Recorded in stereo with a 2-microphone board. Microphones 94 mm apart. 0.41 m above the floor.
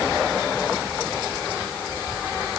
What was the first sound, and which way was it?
Only background noise.